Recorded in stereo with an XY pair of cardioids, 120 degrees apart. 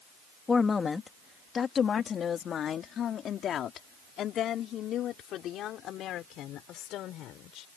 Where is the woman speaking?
25° left; by 7.7 s 75° left.